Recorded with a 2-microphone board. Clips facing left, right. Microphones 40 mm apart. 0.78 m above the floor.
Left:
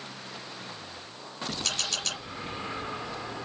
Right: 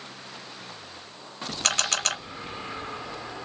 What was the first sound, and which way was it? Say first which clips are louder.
A camera shutter: right 8 dB; 60° right (ahead or behind).